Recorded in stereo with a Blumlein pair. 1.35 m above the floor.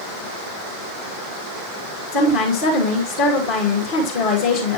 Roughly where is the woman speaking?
Ahead left.